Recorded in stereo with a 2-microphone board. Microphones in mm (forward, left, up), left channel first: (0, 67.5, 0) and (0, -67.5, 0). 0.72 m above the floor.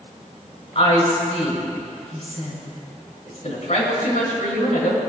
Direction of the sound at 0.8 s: 55° left (ahead or behind).